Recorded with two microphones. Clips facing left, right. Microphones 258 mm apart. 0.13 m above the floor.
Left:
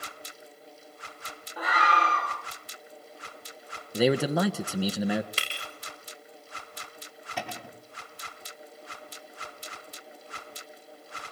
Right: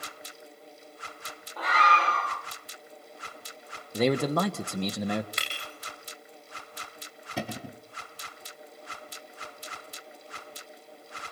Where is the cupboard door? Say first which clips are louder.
Right 4 dB; 40° right (ahead or behind), 3 m.